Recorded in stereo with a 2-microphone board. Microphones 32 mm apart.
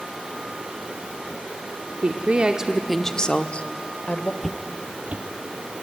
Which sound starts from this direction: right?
A woman speaking, at 2.0 s.